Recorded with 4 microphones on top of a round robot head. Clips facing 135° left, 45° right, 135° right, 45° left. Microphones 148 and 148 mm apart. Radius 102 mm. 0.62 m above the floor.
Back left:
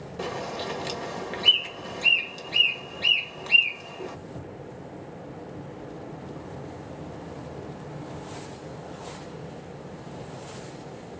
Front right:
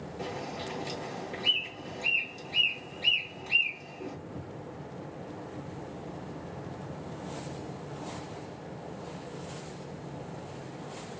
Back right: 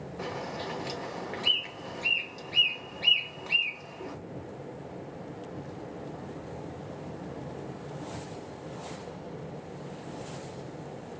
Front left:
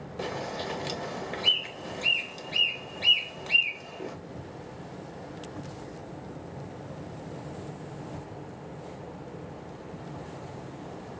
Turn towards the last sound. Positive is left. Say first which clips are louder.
# back left 6 dB, front left 3 dB
turn(degrees=110)